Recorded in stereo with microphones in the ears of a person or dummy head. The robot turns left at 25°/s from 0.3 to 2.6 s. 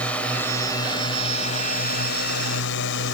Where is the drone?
170° left; by 3.1 s 110° left.